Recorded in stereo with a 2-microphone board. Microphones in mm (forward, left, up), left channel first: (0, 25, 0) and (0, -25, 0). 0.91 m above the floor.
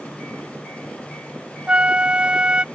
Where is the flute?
20° right (ahead or behind).